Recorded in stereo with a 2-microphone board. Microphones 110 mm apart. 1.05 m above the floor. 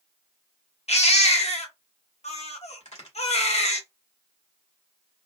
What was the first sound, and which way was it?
A baby crying, 75° left (ahead or behind).